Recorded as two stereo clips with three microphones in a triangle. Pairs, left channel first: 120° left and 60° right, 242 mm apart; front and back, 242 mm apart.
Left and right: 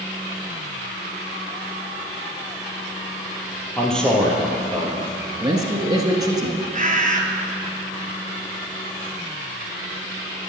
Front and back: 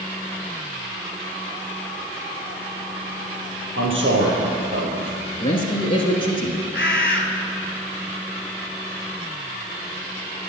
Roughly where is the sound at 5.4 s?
Ahead.